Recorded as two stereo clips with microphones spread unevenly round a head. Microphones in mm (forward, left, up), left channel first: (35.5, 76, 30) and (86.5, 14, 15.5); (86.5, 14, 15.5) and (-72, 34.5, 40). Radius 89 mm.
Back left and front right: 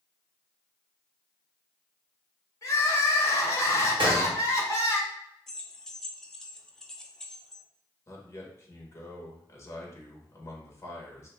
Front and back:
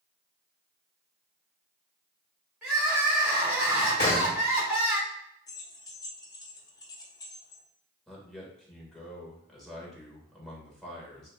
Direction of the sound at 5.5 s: 60° left.